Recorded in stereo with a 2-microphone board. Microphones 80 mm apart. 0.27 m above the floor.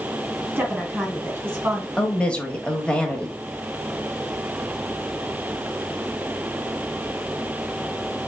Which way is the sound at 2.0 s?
15° left (ahead or behind).